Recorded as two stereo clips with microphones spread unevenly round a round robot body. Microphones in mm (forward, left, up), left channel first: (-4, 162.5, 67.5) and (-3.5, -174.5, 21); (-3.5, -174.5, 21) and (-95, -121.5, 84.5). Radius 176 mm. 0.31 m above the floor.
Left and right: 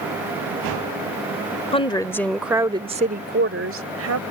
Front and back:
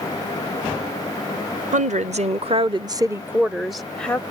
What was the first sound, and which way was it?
A woman speaking, 165° left.